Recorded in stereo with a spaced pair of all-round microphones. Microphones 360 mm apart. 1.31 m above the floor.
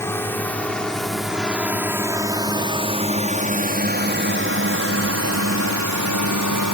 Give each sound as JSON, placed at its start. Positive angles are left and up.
{"t": 0.0, "sound": "a drone", "side_deg": 10}